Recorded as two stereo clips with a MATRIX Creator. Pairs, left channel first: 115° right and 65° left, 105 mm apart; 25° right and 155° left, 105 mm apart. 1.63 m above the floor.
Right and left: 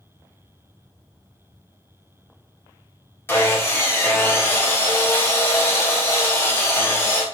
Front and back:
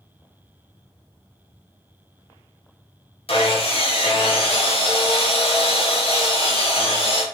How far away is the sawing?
About 2 m.